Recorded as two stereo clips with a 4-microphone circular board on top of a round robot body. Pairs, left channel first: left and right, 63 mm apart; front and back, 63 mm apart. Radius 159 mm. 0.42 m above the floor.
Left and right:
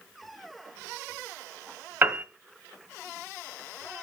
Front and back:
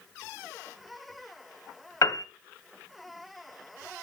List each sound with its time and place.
2.0 s a piano: 30° right, 1.3 m